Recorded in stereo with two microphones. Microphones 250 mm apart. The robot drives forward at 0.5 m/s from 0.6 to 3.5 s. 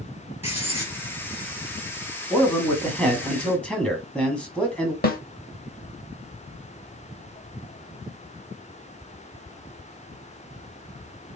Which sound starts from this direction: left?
A snare drum, at 5.0 s.